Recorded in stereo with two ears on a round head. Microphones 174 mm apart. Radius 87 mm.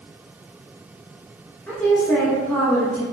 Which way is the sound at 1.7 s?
10° left (ahead or behind).